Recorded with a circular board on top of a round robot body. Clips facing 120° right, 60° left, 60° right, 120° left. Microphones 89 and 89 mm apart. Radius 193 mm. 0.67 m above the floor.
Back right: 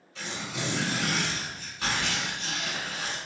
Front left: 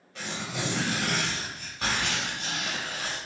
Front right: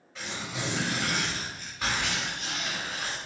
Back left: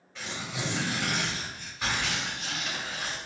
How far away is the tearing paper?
About 0.6 m.